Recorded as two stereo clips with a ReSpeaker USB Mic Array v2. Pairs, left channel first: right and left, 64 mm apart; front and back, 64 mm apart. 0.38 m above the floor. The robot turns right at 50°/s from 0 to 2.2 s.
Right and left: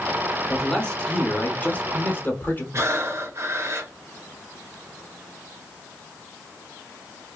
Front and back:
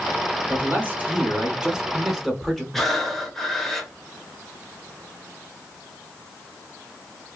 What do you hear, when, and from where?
0.5 s a man speaking: 170° right, 1.1 m; by 2.6 s 85° right, 1.1 m
2.7 s breathing: 80° left, 0.8 m